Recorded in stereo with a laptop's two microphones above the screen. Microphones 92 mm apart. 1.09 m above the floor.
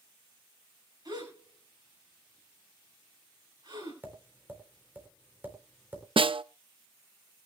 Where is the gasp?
50° right (ahead or behind), 6.5 m.